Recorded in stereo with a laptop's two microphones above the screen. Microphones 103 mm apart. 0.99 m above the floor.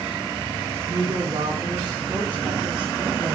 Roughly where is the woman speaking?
Right.